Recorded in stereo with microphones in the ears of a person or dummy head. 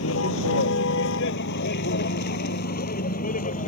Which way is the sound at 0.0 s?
75° left (ahead or behind).